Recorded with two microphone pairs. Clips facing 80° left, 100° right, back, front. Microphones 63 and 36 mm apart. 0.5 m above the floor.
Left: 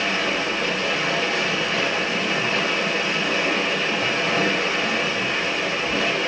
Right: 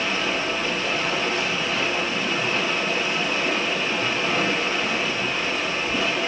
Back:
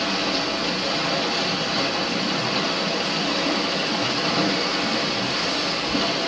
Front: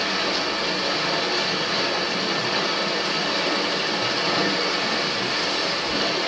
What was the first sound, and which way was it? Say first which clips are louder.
Running water: left 1 dB, even; 60° left.